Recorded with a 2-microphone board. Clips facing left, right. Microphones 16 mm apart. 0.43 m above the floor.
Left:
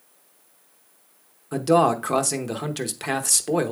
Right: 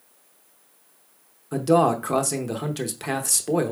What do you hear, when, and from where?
1.5 s a man speaking: 15° left (ahead or behind), 0.8 m